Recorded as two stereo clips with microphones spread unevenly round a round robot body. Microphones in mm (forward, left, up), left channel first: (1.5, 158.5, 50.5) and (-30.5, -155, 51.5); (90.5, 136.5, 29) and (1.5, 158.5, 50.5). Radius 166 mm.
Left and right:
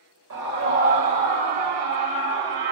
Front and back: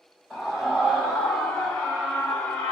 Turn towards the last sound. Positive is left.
turn(degrees=-50)